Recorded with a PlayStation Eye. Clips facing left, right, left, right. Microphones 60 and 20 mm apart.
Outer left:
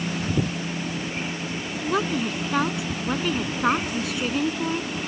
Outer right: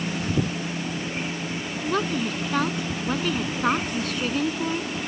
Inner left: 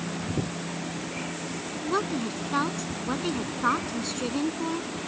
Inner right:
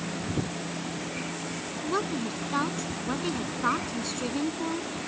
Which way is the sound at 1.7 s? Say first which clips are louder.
Outer left 1 dB, inner left 2 dB; 5° left (ahead or behind).